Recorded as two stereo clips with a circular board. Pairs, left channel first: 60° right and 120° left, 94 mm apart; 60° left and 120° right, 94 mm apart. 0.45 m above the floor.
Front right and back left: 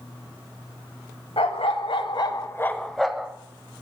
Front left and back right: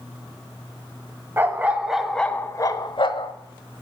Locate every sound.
1.4 s a dog barking: 55° right, 0.8 m; by 3.3 s 40° left, 0.7 m